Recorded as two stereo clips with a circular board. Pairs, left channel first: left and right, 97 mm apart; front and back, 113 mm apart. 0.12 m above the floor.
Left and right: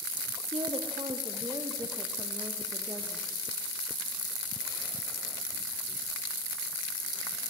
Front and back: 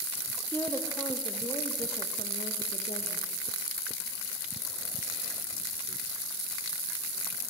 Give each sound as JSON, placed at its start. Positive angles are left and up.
{"t": 0.5, "sound": "a woman speaking", "azimuth_deg": -75, "distance_m": 3.5}